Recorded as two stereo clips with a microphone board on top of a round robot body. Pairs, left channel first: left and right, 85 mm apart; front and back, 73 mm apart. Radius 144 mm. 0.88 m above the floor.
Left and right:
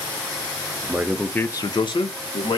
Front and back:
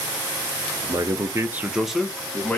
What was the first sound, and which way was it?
A man speaking, 155° right.